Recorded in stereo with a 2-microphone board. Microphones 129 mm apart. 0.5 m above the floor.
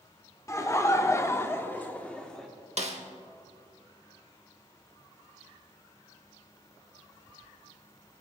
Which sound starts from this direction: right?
A snare drum, at 2.8 s.